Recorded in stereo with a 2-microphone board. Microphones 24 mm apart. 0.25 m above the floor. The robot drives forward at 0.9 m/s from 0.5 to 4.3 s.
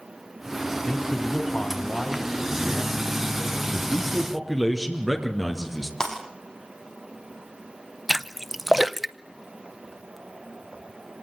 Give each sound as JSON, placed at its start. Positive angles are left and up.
{"t": 0.9, "sound": "a man speaking", "side_deg": 30, "distance_m": 1.9}
{"t": 3.7, "sound": "a man speaking", "side_deg": -5, "distance_m": 4.0}
{"t": 6.0, "sound": "breaking glass", "side_deg": 20, "distance_m": 6.0}
{"t": 8.1, "sound": "a splash", "side_deg": -5, "distance_m": 0.7}